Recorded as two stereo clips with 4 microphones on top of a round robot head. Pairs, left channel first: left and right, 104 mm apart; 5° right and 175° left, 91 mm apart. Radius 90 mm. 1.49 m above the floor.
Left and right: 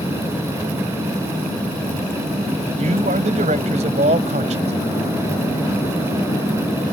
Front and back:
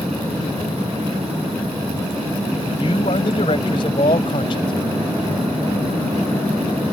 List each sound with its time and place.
2.8 s a man speaking: 55° right